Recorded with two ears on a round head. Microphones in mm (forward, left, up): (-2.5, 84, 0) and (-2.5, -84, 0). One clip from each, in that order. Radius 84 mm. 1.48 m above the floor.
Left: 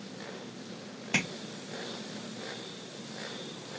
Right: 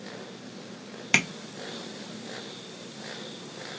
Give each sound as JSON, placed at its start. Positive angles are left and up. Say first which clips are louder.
{"t": 1.1, "sound": "tapping", "louder": "right 7 dB", "side_deg": -60, "distance_m": 0.9}